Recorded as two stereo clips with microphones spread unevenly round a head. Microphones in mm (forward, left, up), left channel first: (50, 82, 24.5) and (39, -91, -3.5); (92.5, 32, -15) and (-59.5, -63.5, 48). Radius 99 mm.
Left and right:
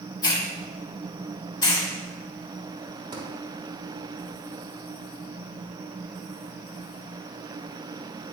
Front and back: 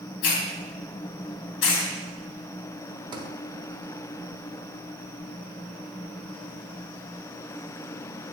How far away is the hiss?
About 3 m.